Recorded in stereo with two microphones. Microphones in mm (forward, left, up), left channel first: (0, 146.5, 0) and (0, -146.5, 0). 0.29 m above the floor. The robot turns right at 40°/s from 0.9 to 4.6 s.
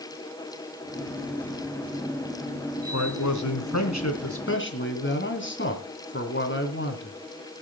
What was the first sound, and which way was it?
A man speaking, 70° left.